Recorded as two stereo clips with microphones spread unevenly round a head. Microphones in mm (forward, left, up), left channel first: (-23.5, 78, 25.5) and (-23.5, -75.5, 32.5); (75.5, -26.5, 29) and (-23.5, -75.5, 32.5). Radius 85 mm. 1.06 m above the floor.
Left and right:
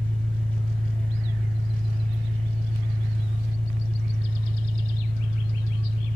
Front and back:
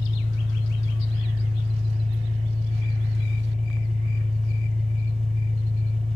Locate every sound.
0.0 s an engine running: 120° right, 1.6 m